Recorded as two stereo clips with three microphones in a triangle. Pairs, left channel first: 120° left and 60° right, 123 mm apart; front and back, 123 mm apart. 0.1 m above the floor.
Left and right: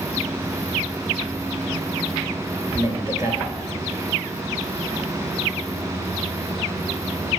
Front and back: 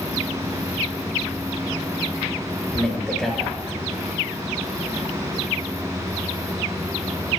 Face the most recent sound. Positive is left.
turn(degrees=-85)